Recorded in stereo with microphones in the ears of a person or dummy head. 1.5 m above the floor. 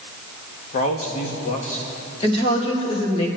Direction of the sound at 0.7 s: 45° left (ahead or behind).